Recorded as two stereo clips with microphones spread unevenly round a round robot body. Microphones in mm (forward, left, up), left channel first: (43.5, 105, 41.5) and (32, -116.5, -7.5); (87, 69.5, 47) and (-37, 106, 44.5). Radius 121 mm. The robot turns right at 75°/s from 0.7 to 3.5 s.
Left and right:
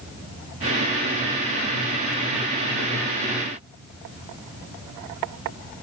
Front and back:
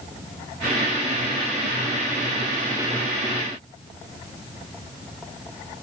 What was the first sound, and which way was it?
Only background noise.